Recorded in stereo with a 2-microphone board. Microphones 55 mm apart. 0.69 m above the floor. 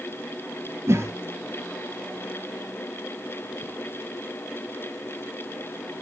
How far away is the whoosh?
About 2.5 m.